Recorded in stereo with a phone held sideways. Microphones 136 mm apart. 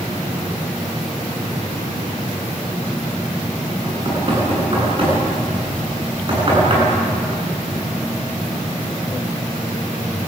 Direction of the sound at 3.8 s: 40° right (ahead or behind).